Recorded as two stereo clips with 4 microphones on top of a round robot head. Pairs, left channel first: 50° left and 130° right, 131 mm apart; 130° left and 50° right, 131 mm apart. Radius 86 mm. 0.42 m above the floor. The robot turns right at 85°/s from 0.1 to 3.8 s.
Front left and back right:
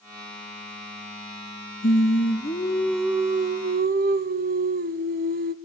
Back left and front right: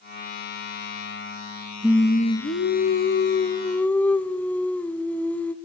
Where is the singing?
45° left, 0.6 m; by 5.5 s 150° right, 0.6 m.